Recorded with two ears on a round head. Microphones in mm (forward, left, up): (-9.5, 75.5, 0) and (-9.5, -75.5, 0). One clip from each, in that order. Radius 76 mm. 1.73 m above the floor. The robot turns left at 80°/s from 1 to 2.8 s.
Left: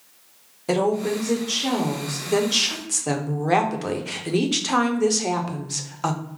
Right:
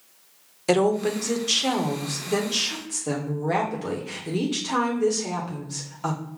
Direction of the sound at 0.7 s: 75° right.